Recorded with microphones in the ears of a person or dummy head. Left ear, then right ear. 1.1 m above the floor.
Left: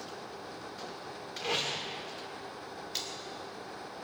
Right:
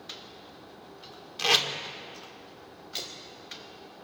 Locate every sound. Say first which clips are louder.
1.4 s tape being pulled: right 9 dB; 65° right (ahead or behind), 1.4 m
2.9 s a splash: right 2 dB; 10° left (ahead or behind), 2.5 m